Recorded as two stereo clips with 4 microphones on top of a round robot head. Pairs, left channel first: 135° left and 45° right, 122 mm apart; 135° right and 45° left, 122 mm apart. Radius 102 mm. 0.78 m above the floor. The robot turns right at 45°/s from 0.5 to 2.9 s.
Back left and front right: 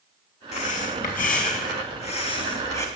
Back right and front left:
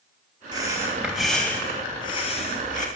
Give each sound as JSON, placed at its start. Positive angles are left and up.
{"t": 0.5, "sound": "breathing", "azimuth_deg": 100, "distance_m": 2.5}